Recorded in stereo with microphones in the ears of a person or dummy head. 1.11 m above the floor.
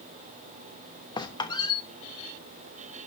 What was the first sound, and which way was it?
A squeak, 25° left (ahead or behind).